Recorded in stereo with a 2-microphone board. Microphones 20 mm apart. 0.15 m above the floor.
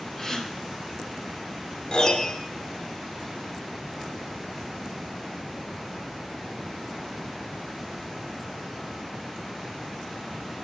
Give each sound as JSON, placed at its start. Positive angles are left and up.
{"t": 0.2, "sound": "a gasp", "side_deg": 5, "distance_m": 1.9}
{"t": 1.9, "sound": "a piano", "side_deg": 30, "distance_m": 1.9}